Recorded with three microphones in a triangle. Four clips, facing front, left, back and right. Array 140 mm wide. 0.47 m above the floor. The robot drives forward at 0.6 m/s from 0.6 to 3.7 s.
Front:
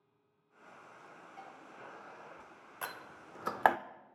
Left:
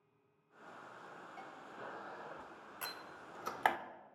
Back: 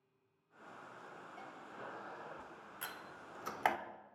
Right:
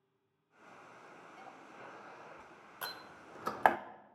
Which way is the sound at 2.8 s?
15° right.